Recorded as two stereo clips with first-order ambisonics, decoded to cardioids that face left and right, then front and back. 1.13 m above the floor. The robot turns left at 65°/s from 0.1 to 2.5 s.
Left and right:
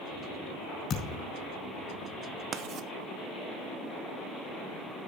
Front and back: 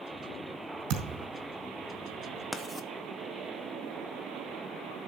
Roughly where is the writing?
Right.